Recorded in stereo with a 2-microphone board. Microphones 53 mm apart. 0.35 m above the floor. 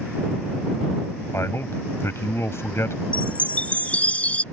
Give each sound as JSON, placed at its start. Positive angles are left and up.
{"t": 1.3, "sound": "a man speaking", "side_deg": 55}
{"t": 3.1, "sound": "a chime", "side_deg": 25}